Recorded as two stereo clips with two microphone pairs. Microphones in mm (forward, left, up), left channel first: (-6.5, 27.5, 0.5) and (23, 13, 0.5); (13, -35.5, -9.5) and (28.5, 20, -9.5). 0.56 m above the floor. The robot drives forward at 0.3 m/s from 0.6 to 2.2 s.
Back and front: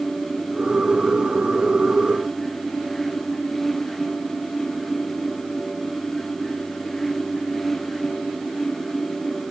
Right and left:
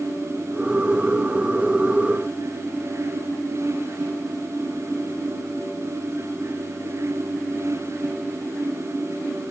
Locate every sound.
Only background noise.